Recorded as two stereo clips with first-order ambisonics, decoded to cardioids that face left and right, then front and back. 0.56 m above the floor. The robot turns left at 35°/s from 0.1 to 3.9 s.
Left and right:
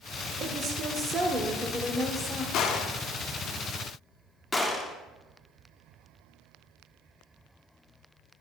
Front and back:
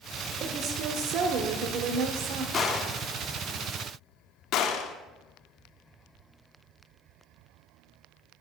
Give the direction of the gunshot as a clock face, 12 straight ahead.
10 o'clock.